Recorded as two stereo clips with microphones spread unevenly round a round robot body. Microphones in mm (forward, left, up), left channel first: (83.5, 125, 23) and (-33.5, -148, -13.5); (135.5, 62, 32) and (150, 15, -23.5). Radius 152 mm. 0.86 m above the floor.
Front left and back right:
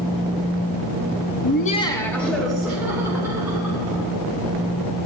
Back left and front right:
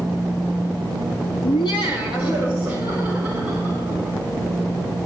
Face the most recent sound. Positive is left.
turn(degrees=165)